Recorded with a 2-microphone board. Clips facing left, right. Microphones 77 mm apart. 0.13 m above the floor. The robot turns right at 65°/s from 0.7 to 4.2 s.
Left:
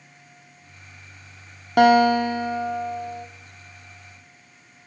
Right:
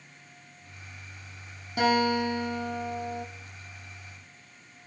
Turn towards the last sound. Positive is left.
turn(degrees=-90)